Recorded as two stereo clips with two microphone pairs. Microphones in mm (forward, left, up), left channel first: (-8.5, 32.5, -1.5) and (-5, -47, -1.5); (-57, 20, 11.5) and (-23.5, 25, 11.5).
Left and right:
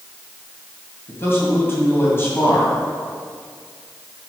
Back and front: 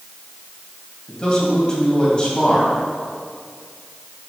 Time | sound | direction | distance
1.1 | a man speaking | 140° left | 2 m